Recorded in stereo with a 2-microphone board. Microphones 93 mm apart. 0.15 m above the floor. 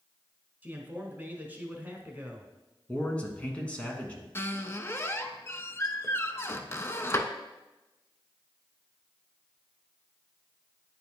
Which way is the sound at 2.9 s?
15° left (ahead or behind).